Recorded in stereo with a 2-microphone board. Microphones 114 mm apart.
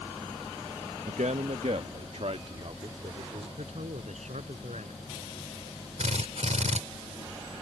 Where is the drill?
85° right.